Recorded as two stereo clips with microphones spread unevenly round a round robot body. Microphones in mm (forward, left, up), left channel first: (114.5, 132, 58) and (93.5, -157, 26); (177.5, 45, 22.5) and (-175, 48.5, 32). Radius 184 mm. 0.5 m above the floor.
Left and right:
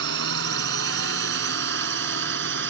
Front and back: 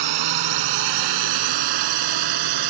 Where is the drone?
150° right; by 2.7 s 155° right.